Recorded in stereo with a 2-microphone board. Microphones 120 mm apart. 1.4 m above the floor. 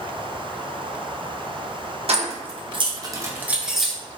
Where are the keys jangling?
60° right (ahead or behind), 0.8 m; by 4.0 s centre (ahead or behind), 0.9 m.